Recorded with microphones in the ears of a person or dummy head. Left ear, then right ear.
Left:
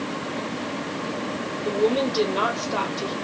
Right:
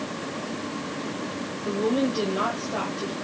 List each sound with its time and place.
1.6 s a woman speaking: 60° left (ahead or behind), 1.3 m